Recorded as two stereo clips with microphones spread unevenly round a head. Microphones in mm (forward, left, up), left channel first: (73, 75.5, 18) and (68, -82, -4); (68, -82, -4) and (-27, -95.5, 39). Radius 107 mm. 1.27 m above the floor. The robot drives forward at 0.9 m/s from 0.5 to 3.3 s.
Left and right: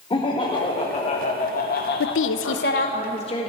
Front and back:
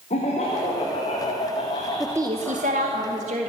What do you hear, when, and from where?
0.1 s laughter: 30° left, 1.9 m; by 3.0 s 125° left, 1.1 m
2.0 s a woman speaking: 95° left, 0.6 m; by 3.5 s 155° left, 1.3 m